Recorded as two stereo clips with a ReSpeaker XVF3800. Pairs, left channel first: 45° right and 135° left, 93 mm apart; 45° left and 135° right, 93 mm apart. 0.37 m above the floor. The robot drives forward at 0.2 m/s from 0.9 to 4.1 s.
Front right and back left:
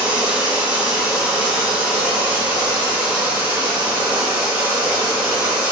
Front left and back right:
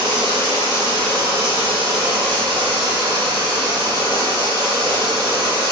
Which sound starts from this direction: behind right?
Running water, at 0.0 s.